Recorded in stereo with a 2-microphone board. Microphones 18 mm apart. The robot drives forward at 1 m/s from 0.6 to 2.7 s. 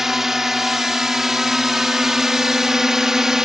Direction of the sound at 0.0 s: 20° right (ahead or behind).